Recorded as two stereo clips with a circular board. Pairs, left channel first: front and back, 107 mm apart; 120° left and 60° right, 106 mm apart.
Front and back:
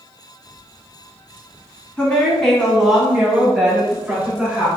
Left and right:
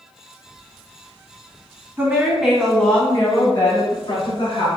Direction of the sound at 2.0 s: 65° right.